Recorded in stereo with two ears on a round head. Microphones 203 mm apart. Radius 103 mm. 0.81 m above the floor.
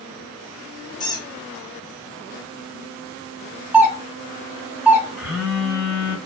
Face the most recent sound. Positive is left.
turn(degrees=0)  # may be behind; listen again after turning